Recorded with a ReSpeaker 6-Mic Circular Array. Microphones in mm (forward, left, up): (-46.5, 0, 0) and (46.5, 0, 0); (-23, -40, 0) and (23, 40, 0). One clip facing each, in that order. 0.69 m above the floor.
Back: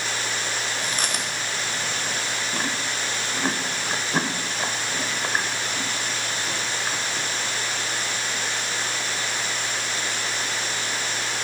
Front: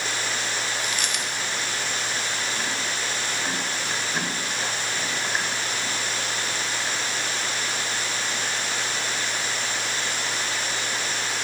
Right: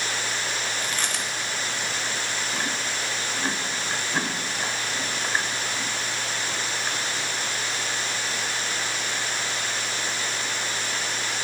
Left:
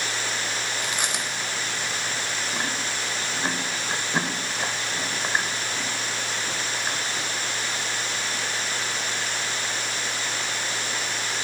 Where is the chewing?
135° left, 0.7 m.